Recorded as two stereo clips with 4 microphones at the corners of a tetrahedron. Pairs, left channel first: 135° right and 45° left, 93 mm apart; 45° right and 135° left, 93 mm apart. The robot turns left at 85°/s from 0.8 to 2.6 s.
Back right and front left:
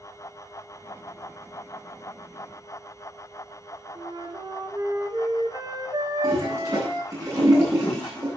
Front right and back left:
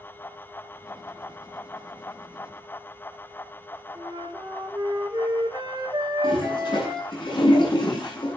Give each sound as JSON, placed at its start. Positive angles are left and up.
{"t": 4.0, "sound": "a flute", "azimuth_deg": 90, "distance_m": 3.5}
{"t": 6.2, "sound": "a toilet flushing", "azimuth_deg": -5, "distance_m": 9.5}